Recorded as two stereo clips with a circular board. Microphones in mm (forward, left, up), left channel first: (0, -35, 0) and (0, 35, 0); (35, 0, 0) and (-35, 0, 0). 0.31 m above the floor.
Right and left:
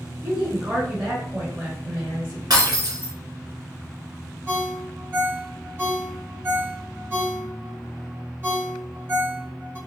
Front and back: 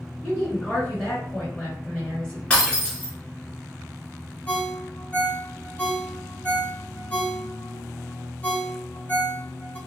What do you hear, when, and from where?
0.2 s a woman speaking: 65° left, 0.9 m
2.5 s breaking glass: 75° left, 1.2 m
4.5 s a ringtone: 55° left, 1.0 m